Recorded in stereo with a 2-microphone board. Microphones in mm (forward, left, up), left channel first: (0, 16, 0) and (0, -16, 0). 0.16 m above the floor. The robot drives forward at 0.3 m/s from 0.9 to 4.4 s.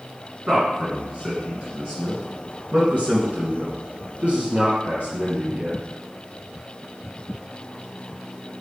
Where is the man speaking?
40° right (ahead or behind), 2 m.